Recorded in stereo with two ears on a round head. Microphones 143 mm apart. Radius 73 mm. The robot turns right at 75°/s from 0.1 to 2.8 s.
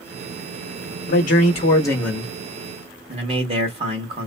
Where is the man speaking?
95° left, 1.5 m; by 4.3 s 135° right, 1.5 m.